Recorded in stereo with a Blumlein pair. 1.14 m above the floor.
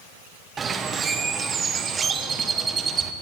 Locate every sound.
0.6 s a bird: 20° right, 0.6 m